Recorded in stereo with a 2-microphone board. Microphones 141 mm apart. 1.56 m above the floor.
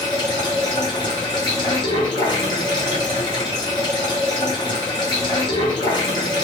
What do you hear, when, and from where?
0.0 s running water: 30° left (ahead or behind), 1.1 m